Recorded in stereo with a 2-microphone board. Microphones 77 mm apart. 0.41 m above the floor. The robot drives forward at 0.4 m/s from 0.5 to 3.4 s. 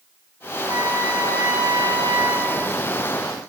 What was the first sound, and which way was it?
A trumpet, 60° right (ahead or behind).